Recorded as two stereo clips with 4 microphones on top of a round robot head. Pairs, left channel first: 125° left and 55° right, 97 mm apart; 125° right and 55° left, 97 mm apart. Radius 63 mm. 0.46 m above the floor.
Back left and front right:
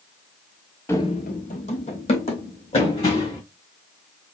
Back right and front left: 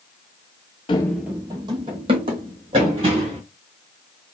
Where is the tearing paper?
No tearing paper in this recording.